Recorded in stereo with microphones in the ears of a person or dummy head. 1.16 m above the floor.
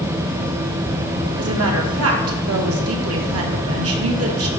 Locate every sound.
1.4 s a woman speaking: 70° right (ahead or behind), 1.6 m